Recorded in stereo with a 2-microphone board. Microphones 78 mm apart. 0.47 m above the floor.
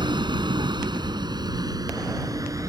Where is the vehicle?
80° right; by 2.7 s 45° right (ahead or behind).